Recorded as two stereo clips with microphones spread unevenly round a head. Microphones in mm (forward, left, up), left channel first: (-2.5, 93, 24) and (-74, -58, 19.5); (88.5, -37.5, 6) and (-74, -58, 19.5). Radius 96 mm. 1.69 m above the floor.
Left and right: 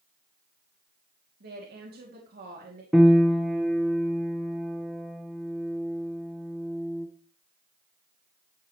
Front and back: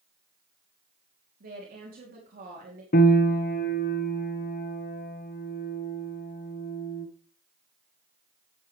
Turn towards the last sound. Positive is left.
turn(degrees=-25)